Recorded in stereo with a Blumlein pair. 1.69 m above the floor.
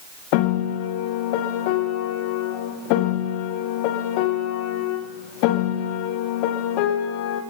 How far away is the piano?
About 1.6 m.